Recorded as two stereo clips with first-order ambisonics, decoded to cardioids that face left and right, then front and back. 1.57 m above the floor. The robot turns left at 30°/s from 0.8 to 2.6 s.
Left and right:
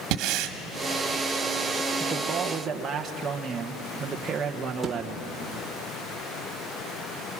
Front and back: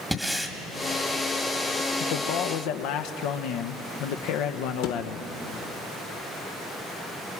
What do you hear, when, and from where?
0.1 s breathing: 95° right, 1.6 m
2.0 s a man speaking: straight ahead, 1.2 m; by 5.3 s 20° right, 1.2 m
4.8 s a thud: 5° right, 2 m